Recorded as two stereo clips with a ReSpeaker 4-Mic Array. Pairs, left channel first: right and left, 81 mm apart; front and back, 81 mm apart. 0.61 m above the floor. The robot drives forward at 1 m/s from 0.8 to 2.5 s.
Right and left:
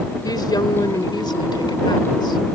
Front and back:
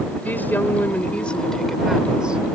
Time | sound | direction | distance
0.2 | a woman speaking | 65° right | ?